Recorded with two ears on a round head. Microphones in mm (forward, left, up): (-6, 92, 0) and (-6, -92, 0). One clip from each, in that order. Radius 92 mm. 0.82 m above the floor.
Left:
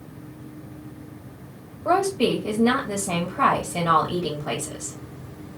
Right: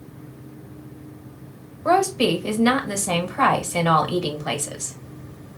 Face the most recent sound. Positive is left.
turn(degrees=-55)  # may be behind; listen again after turning